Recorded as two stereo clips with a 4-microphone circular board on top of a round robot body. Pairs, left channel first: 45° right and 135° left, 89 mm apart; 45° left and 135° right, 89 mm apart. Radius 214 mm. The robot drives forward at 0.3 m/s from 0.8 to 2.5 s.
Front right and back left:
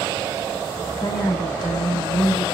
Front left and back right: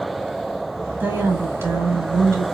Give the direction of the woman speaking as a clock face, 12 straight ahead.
2 o'clock.